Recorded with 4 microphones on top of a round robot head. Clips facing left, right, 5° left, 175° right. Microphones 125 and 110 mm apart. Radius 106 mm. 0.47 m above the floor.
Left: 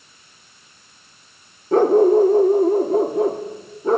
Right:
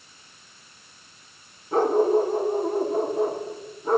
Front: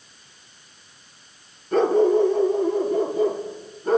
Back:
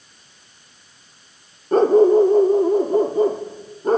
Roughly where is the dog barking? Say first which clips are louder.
Left 7 dB, back 5 dB; behind left.